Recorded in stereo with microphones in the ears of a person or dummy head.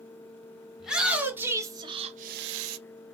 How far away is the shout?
About 1.4 m.